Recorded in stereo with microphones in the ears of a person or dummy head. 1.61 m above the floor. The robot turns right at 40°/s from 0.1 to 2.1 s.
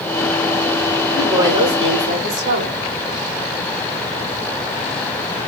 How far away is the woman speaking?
About 1.8 m.